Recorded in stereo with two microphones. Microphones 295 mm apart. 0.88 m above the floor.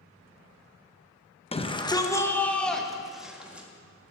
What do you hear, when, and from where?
1.5 s a shout: 20° left (ahead or behind), 0.9 m; by 3.7 s 5° right (ahead or behind), 1.8 m